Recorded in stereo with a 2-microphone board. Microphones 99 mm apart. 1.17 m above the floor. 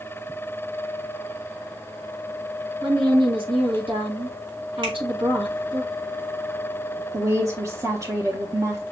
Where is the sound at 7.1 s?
35° right (ahead or behind), 0.9 m.